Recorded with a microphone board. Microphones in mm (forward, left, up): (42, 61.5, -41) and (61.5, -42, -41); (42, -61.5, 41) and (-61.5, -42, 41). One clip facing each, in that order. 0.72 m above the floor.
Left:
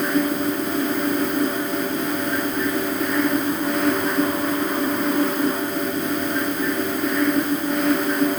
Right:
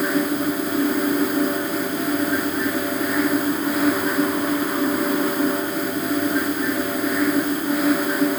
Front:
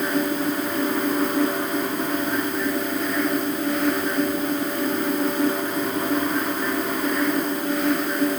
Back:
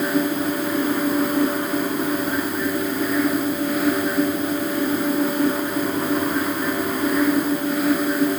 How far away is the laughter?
I don't hear laughter.